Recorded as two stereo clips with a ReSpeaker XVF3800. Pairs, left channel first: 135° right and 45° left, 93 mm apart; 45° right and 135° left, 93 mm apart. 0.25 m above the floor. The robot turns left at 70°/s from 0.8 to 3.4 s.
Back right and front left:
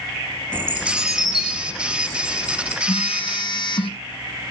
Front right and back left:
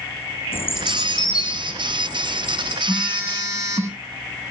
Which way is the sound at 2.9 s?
135° right.